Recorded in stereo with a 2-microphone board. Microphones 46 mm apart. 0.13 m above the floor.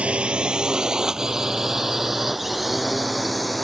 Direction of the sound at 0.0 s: 25° right (ahead or behind).